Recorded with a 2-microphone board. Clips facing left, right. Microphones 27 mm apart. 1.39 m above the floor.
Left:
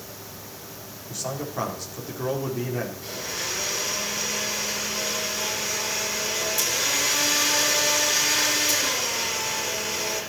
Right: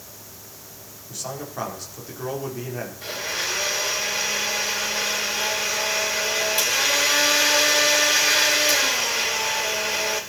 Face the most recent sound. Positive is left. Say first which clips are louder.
# right 4 dB
turn(degrees=-50)  # may be behind; listen again after turning